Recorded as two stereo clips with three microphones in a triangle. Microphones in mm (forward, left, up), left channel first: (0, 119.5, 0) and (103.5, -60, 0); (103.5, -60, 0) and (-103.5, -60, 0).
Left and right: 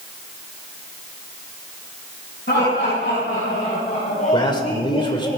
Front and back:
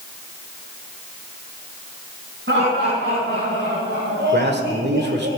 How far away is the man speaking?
About 1.7 m.